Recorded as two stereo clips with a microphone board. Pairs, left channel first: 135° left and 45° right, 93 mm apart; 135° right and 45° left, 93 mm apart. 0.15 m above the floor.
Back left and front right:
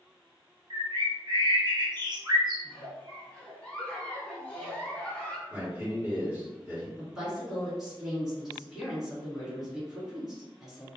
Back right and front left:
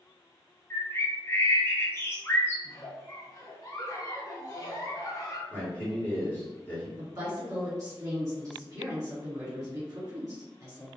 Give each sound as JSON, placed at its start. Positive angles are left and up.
{"t": 0.7, "sound": "a bird", "azimuth_deg": -75, "distance_m": 0.8}
{"t": 2.6, "sound": "a giggle", "azimuth_deg": -155, "distance_m": 0.6}
{"t": 5.5, "sound": "a man speaking", "azimuth_deg": -85, "distance_m": 1.7}
{"t": 7.0, "sound": "a woman speaking", "azimuth_deg": 35, "distance_m": 1.8}